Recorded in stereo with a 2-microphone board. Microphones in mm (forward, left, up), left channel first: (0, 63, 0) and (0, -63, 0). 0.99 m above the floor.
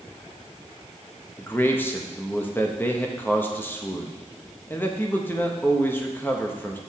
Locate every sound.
1.4 s a man speaking: 15° left (ahead or behind), 1.0 m